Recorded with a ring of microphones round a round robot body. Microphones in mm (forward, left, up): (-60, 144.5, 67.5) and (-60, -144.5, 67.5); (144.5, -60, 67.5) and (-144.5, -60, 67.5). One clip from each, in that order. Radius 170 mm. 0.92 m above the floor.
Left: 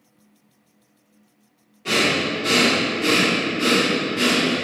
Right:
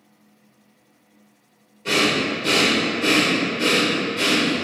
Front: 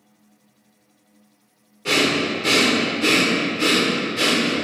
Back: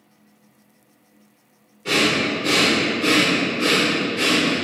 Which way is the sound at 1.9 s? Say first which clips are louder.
Even, even; 5° left.